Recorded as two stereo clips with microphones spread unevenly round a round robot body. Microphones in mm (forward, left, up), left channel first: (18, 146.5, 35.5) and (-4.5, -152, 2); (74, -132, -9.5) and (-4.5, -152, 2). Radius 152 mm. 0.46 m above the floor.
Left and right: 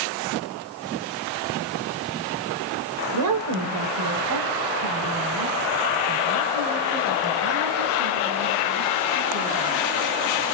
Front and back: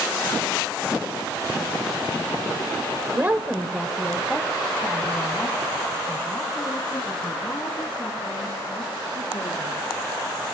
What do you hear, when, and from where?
3.1 s a woman speaking: 105° right, 1.6 m; by 9.8 s 45° right, 7.5 m